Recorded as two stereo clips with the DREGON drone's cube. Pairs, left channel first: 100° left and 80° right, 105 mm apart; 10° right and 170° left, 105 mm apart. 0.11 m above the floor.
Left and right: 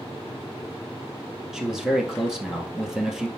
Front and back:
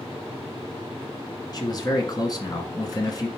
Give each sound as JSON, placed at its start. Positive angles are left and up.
{"t": 1.5, "sound": "a man speaking", "azimuth_deg": 5, "distance_m": 1.7}